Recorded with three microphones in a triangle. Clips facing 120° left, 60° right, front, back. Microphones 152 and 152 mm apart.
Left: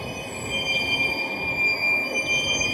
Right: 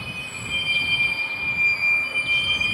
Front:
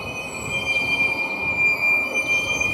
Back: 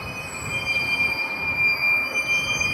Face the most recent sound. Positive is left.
turn(degrees=70)